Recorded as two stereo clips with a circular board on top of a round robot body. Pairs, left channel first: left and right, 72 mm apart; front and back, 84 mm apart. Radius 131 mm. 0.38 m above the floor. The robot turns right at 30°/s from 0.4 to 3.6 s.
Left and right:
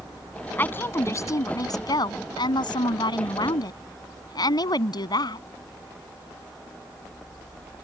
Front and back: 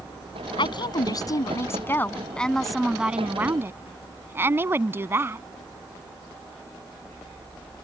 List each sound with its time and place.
0.6 s a woman speaking: 25° left; by 5.4 s 115° left